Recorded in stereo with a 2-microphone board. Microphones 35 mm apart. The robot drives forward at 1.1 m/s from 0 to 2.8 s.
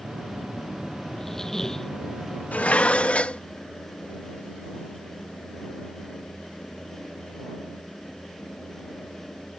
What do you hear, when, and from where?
1.1 s a squeak: 10° left (ahead or behind)
2.5 s dishes clattering: 45° left (ahead or behind); by 3.4 s 35° left (ahead or behind)